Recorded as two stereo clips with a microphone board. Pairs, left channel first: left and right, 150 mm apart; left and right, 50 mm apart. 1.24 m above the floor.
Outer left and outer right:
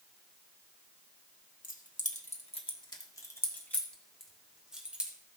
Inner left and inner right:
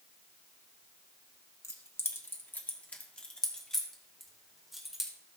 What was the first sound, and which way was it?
Keys jangling, 65° left (ahead or behind).